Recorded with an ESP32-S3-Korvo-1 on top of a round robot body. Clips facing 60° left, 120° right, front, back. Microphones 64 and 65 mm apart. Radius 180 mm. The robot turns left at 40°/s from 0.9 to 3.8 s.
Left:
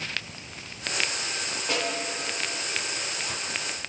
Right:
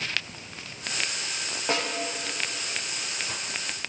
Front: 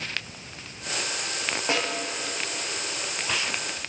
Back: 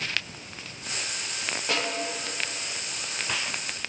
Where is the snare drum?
60° right, 3 m; by 1.9 s 70° right, 3 m.